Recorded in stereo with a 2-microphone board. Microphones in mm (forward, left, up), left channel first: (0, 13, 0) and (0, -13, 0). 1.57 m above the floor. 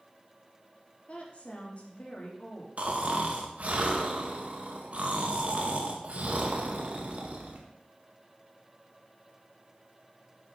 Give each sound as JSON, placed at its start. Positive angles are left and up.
{"t": 1.1, "sound": "a woman speaking", "side_deg": 45, "distance_m": 2.5}
{"t": 2.8, "sound": "snoring", "side_deg": -50, "distance_m": 1.7}